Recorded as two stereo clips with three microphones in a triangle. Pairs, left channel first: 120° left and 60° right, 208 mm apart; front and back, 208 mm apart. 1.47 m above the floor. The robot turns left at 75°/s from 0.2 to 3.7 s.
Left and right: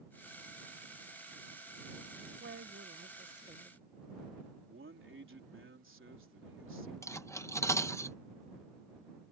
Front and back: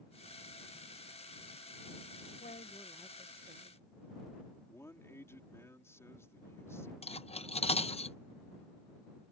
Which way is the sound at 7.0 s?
50° left.